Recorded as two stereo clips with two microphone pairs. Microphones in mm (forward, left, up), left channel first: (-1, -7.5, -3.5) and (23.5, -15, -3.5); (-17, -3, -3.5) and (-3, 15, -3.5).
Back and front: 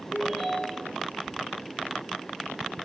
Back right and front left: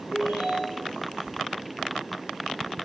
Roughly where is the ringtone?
Ahead left.